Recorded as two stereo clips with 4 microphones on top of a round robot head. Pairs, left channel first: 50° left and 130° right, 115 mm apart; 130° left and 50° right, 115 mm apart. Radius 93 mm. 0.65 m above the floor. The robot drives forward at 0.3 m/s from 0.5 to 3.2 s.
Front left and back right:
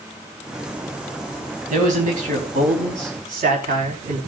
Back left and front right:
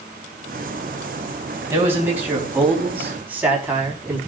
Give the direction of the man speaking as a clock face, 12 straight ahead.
4 o'clock.